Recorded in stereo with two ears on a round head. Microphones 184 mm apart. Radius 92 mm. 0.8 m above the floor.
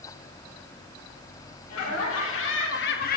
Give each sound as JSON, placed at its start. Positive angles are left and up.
{"t": 1.7, "sound": "laughter", "side_deg": 80, "distance_m": 2.0}